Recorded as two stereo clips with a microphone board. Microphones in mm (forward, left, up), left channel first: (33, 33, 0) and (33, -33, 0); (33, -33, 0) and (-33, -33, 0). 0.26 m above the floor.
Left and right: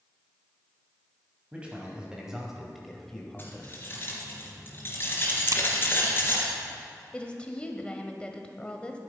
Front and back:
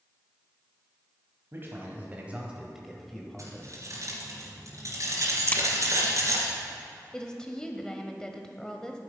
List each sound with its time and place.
1.5 s a man speaking: 150° right, 2.0 m; by 3.9 s 35° left, 1.7 m
3.4 s keys jangling: 145° left, 3 m
5.5 s a crack: 65° right, 0.7 m
7.1 s a woman speaking: 60° left, 0.9 m